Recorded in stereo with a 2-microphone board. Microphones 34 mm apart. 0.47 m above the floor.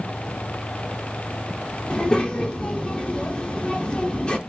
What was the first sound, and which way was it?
A child speaking, 30° left (ahead or behind).